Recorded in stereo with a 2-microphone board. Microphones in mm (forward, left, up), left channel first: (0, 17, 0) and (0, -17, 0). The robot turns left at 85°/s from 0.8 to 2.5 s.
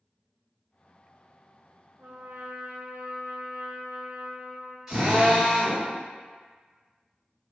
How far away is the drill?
About 1.9 m.